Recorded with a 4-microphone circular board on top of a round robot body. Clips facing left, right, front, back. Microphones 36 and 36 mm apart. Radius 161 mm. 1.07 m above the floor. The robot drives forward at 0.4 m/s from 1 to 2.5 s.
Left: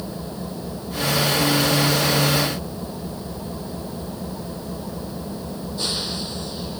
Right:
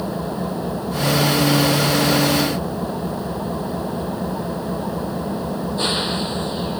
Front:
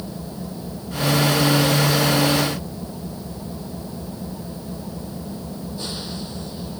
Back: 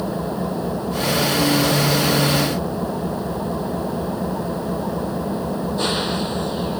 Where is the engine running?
140° right.